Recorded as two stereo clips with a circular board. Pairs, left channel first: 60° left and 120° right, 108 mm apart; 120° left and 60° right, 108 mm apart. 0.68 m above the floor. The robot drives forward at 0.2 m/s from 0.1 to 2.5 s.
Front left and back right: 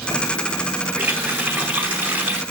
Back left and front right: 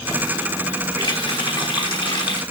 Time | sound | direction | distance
1.0 | a running tap | 165° left | 3 m